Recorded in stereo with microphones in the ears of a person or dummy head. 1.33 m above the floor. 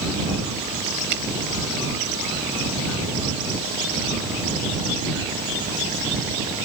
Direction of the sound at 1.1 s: 55° right (ahead or behind).